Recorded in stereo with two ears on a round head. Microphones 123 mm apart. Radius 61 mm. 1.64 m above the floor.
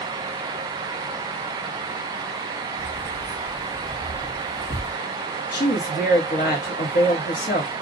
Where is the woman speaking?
70° left (ahead or behind), 1.1 m.